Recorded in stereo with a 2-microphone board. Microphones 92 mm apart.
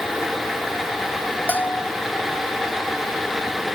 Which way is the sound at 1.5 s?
20° left (ahead or behind).